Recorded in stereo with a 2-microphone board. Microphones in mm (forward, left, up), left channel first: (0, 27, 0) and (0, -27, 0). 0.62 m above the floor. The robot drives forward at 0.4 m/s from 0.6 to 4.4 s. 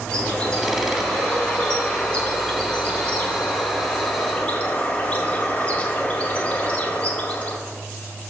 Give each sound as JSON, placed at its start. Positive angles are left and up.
{"t": 0.1, "sound": "a bird", "side_deg": 15, "distance_m": 2.5}